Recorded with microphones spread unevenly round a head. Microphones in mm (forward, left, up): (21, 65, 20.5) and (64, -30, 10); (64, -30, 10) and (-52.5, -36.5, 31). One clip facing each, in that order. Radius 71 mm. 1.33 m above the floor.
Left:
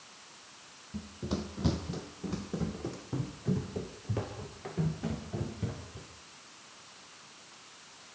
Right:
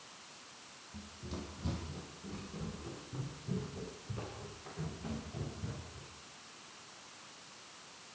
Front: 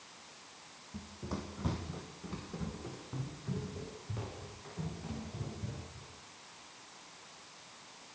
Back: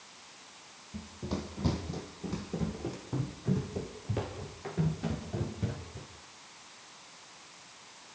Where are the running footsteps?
115° left, 3 m; by 6.1 s 150° left, 7.5 m.